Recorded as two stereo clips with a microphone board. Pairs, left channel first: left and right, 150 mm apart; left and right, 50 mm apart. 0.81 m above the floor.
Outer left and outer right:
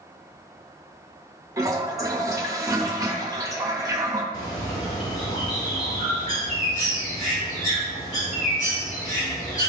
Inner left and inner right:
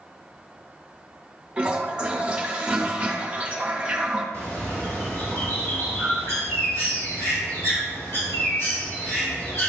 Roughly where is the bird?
Left.